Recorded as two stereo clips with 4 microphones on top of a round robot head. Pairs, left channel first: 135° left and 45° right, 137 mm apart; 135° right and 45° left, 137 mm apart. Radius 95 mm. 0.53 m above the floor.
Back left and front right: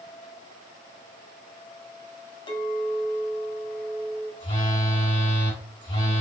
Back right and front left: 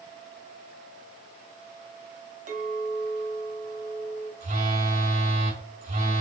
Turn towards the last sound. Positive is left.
turn(degrees=75)